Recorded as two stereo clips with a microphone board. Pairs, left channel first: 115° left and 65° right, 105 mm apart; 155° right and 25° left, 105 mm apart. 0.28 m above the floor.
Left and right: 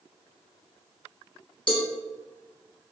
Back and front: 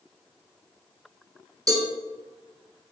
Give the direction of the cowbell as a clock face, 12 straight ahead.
9 o'clock.